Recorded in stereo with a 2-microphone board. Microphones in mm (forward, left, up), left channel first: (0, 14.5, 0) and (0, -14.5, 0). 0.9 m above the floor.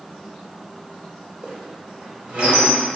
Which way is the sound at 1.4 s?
55° right (ahead or behind).